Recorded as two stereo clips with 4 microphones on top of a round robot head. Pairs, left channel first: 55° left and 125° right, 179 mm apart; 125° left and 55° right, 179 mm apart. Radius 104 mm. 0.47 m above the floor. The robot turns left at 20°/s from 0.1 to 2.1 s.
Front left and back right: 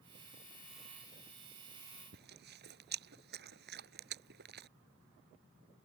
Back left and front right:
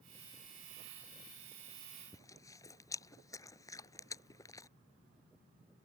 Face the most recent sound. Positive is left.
turn(degrees=-160)